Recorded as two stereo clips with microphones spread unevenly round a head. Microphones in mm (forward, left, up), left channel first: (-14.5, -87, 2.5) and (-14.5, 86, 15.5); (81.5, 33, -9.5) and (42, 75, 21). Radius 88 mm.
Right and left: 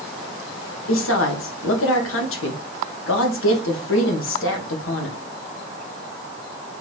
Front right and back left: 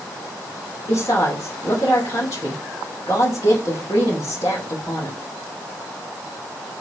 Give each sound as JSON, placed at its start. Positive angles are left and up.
{"t": 0.9, "sound": "a woman speaking", "azimuth_deg": -100, "distance_m": 1.5}